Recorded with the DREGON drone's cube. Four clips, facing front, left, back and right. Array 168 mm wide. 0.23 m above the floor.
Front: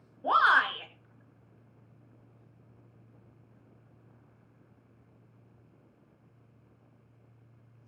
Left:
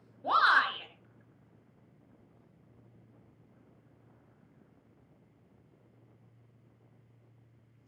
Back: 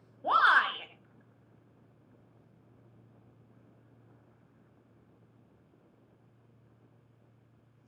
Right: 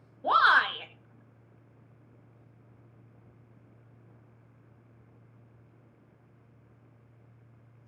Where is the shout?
80° right, 1.6 m.